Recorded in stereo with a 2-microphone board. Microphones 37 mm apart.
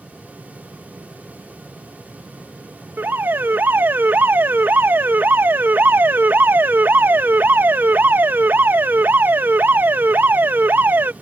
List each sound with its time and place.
3.0 s an alarm: 65° right (ahead or behind)